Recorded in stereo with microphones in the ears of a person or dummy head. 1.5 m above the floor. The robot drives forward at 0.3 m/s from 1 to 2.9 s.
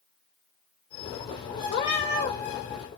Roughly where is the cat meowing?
Left.